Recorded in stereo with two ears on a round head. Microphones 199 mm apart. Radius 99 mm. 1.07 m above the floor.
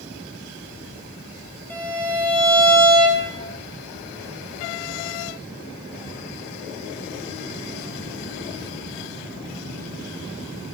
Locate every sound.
1.7 s a violin: 10° left (ahead or behind), 3 m